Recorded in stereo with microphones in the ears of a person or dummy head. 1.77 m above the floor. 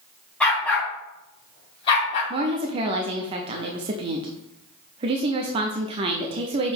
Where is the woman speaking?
25° right (ahead or behind), 0.5 m.